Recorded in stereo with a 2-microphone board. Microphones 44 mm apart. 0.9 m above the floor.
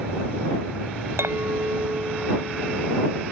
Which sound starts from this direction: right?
A clink, at 1.2 s.